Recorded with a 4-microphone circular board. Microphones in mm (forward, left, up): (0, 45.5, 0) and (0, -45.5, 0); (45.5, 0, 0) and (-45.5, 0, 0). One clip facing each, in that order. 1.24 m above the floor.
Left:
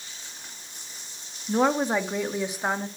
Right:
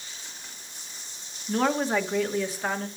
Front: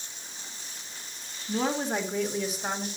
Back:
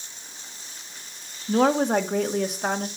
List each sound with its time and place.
1.5 s a woman speaking: 165° left, 1.9 m; by 2.9 s 160° left, 2.5 m